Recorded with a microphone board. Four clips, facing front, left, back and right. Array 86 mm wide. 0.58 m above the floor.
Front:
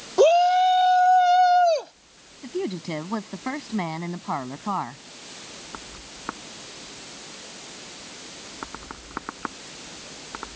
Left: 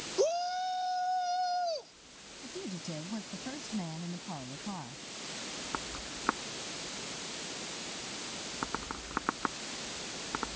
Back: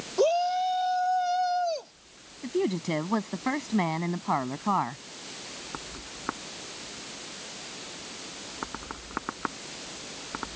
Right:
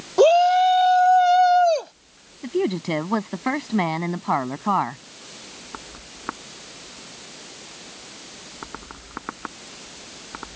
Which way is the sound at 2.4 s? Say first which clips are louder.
Right 18 dB, back 1 dB; 95° right.